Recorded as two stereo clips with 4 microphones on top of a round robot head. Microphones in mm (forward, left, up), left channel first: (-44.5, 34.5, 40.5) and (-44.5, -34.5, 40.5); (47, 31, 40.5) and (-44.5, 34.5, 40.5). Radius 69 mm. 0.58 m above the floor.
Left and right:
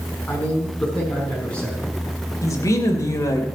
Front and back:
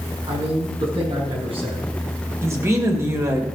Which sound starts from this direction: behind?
A man speaking, at 0.3 s.